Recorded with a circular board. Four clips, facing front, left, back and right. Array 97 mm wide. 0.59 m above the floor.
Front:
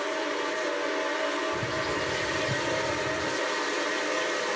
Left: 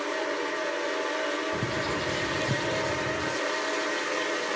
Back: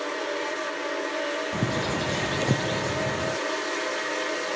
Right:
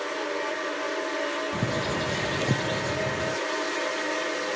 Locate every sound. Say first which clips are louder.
1.5 s a bird: right 1 dB, back 2 dB; 155° right